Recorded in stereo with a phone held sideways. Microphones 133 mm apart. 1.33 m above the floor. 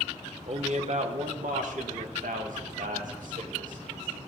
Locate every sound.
0.5 s a man speaking: 55° right (ahead or behind), 1.1 m; by 4.2 s 75° right (ahead or behind), 3 m